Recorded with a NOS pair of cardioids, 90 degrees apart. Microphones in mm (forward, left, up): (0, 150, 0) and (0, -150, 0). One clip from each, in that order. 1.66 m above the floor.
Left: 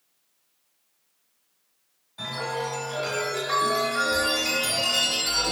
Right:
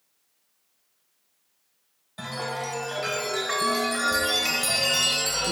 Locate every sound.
2.2 s a chime: 50° right, 1.1 m